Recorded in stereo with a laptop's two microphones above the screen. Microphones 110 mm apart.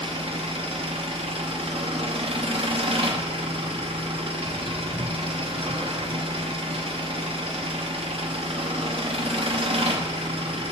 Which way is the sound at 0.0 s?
55° right (ahead or behind).